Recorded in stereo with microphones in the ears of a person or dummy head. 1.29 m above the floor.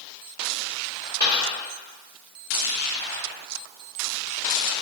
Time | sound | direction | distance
1.2 | a dropped coin | 20° right (ahead or behind) | 1.9 m